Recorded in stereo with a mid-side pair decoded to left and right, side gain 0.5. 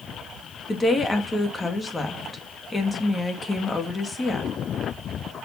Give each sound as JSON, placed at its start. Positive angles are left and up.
{"t": 0.7, "sound": "a woman speaking", "azimuth_deg": 25, "distance_m": 2.0}